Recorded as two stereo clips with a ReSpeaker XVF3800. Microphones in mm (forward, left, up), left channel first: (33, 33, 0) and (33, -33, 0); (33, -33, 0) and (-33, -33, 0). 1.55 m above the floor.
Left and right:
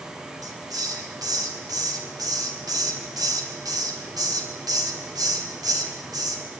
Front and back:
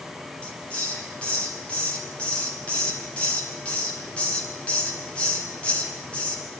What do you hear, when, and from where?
0.4 s a hiss: 75° right, 4.5 m